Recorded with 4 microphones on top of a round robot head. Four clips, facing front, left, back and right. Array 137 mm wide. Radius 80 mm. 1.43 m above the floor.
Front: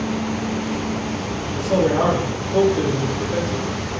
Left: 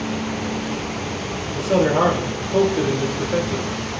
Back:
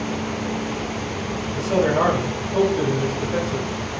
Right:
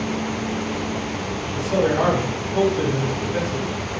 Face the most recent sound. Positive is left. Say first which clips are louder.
# left 3 dB, front 1 dB
turn(degrees=65)